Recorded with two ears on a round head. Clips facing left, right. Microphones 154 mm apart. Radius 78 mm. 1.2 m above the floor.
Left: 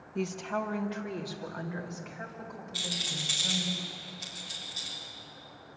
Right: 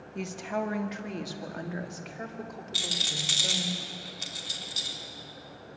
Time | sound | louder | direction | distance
0.1 | a woman speaking | even | centre (ahead or behind) | 1.3 m
2.7 | a rattle | right 1 dB | 70° right (ahead or behind) | 4 m